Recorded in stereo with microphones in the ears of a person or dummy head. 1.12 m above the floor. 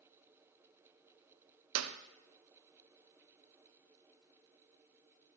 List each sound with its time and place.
1.8 s a clap: 85° right, 0.5 m